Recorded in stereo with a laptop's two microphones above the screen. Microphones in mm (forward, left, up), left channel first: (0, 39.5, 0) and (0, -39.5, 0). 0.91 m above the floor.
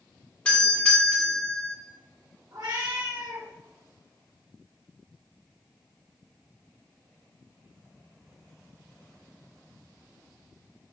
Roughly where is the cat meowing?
Right.